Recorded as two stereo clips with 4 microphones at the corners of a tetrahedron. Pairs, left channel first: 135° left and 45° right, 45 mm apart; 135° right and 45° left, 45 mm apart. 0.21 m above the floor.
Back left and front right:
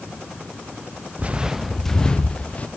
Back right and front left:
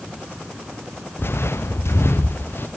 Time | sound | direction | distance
1.2 | footsteps | 100° right | 0.8 m